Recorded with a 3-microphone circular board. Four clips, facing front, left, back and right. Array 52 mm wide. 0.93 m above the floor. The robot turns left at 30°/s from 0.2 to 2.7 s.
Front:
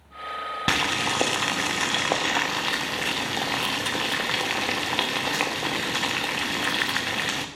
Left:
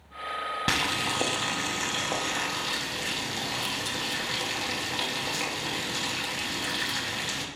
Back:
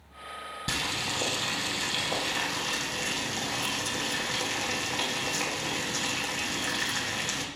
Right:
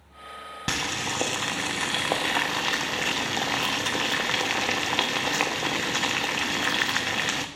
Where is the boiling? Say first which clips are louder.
Even, front 8 dB; 10° left, 0.6 m; by 7.5 s 50° right, 0.6 m.